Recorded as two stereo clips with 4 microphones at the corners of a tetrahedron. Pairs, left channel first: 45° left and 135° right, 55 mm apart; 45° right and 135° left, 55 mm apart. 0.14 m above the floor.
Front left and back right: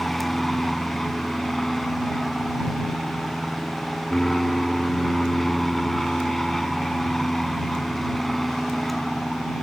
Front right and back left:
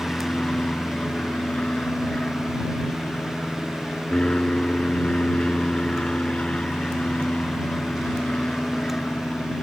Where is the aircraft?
35° right.